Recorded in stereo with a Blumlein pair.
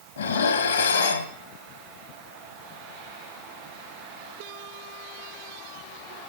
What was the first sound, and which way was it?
Dishes clattering, 65° left.